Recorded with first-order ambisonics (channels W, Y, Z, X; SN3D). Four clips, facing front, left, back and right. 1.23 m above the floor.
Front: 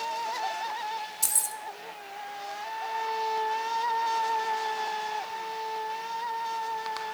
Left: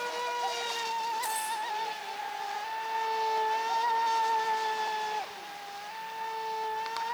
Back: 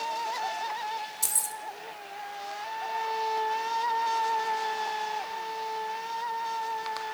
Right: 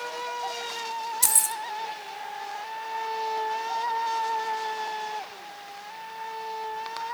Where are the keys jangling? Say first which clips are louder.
Right 5 dB, front 3 dB; 85° right, 0.9 m.